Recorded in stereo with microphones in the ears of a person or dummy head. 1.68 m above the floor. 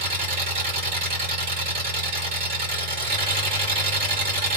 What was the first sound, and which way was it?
An engine running, 50° right (ahead or behind).